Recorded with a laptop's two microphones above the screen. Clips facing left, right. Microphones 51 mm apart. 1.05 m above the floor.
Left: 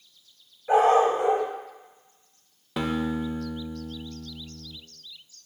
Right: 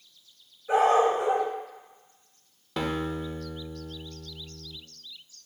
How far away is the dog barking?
About 1.6 m.